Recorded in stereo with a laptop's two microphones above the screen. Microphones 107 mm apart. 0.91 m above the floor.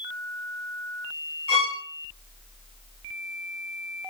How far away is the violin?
About 2.5 m.